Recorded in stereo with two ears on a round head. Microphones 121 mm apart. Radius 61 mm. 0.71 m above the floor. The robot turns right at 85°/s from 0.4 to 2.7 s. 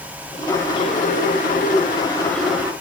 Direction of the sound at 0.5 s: 10° left.